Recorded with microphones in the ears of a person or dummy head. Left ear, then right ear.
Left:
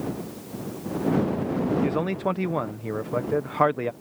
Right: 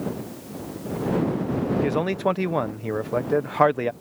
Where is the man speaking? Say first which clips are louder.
Right 3 dB; 10° right (ahead or behind).